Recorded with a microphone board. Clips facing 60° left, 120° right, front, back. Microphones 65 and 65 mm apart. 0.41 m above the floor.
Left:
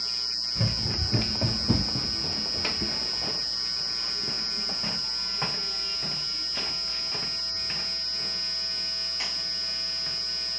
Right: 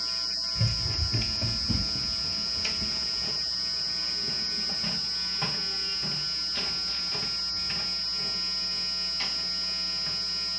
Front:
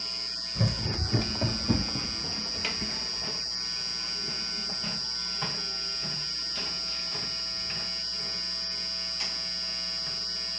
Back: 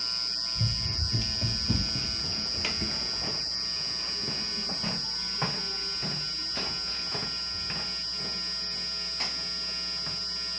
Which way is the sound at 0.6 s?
10° left.